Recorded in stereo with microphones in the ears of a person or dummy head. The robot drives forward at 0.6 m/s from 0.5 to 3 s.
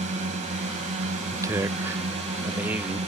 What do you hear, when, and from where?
0.0 s a drone: 40° right (ahead or behind)
1.3 s a man speaking: 20° right (ahead or behind); by 3.0 s 10° right (ahead or behind)